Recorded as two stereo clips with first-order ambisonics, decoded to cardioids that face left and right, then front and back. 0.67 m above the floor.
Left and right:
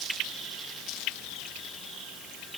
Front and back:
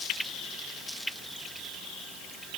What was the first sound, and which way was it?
Only background noise.